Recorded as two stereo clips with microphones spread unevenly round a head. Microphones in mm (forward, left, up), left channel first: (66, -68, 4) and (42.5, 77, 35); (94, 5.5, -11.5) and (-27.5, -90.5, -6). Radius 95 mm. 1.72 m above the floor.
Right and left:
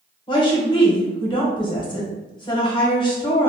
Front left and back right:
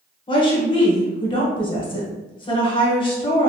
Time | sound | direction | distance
0.3 | a woman speaking | 20° right | 1.3 m